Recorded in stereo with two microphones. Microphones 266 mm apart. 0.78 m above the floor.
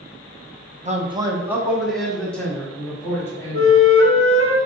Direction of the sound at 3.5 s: 55° right (ahead or behind).